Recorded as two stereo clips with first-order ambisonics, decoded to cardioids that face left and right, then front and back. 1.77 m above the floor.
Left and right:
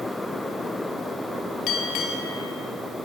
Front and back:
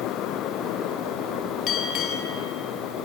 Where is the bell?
45° left, 4 m.